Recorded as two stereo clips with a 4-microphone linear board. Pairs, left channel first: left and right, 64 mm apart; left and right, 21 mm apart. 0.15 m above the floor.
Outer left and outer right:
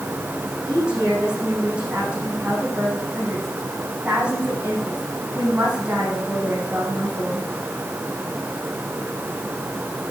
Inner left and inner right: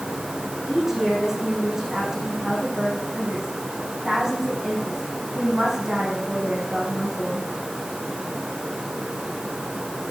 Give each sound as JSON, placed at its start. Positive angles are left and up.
{"t": 0.6, "sound": "a woman speaking", "side_deg": -15, "distance_m": 7.5}